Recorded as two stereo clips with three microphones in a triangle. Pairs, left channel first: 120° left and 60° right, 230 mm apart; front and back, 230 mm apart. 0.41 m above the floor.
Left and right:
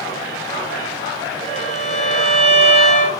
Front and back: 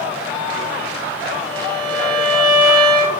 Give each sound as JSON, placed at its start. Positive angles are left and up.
{"t": 1.5, "sound": "a violin", "azimuth_deg": 0, "distance_m": 6.0}